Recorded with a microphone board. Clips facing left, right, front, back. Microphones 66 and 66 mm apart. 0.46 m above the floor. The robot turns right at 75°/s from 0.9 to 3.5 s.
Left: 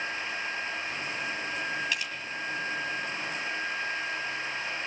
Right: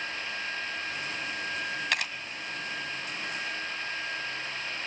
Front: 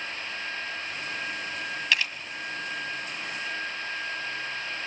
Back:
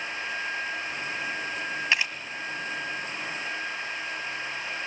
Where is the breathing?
No breathing in this recording.